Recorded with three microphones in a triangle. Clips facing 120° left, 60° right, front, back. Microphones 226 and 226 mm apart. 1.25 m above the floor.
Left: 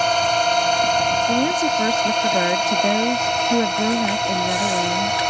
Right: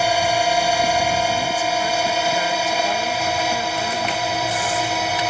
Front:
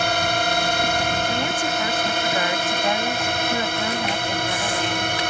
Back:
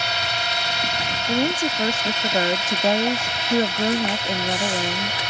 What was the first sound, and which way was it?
A drone, 20° left.